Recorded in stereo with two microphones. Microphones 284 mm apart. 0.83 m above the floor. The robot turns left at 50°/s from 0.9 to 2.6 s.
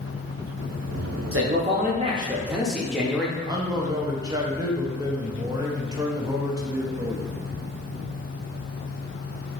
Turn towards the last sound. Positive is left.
turn(degrees=-15)  # may be behind; listen again after turning